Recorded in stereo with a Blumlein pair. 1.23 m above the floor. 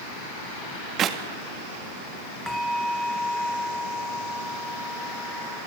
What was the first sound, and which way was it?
A clap, 30° right.